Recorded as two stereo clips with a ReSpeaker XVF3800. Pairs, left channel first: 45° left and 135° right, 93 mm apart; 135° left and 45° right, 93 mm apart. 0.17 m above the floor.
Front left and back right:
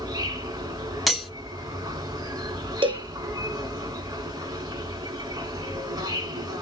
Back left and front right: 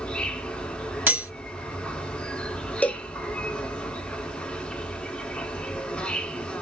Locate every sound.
0.0 s an insect: 155° right, 1.1 m
1.1 s cutlery clinking: 45° right, 0.8 m
2.8 s a cowbell: 150° right, 0.7 m